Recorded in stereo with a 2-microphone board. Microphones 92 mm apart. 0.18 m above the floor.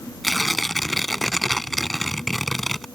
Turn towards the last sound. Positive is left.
turn(degrees=0)  # may be behind; listen again after turning